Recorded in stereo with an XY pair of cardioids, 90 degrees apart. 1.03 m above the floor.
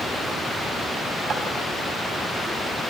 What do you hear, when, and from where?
1.3 s tapping: 55° right, 4.5 m